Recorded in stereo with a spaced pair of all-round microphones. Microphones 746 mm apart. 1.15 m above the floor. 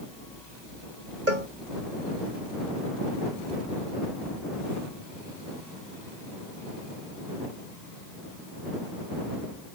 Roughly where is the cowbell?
Right.